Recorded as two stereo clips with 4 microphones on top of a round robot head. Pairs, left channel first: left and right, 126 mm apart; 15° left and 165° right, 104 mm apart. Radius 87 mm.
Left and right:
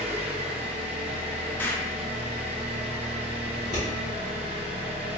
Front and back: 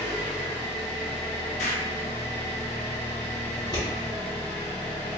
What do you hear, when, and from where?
0.0 s an engine running: 50° right, 0.8 m
1.6 s an explosion: 15° left, 0.5 m
3.5 s scissors: 55° left, 1.4 m